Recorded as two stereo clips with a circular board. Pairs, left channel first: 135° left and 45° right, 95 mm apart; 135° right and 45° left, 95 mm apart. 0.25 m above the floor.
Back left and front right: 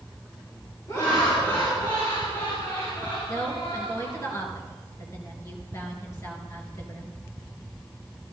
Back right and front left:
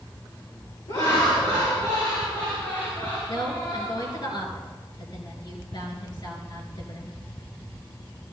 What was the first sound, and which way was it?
Laughter, straight behind.